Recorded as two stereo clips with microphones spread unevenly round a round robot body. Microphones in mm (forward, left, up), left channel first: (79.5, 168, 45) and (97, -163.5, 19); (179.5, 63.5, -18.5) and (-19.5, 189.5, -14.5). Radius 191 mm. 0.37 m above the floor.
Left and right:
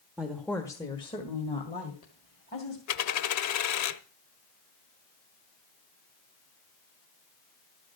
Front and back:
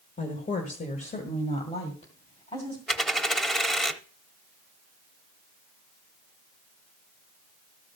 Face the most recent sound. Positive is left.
turn(degrees=55)